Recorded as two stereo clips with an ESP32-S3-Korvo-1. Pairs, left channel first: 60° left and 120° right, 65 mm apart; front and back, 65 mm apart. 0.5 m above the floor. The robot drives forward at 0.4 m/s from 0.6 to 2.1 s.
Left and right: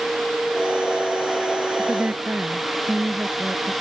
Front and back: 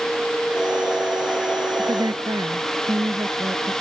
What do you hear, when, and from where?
1.8 s a woman speaking: 170° left